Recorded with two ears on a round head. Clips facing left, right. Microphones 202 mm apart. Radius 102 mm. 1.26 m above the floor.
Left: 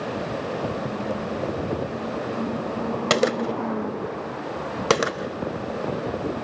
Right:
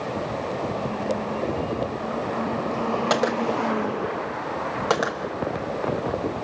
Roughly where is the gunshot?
Left.